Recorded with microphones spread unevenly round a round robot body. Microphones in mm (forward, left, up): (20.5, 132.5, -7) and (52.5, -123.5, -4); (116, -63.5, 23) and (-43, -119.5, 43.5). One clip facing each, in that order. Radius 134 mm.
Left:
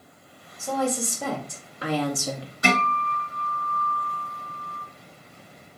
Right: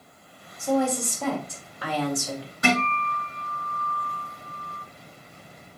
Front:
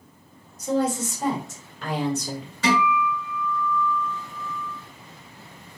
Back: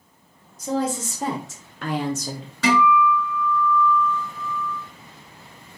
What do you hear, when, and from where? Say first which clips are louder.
0.6 s a woman speaking: right 3 dB, front 1 dB; 175° right, 1.5 m; by 2.5 s 125° left, 0.7 m
2.6 s a guitar: right 1 dB, back 4 dB; 155° right, 3 m